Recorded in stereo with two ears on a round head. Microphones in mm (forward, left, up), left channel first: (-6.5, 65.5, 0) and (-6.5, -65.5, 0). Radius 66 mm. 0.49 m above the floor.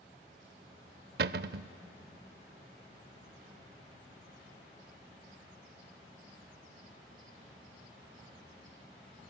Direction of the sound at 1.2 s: 75° right (ahead or behind).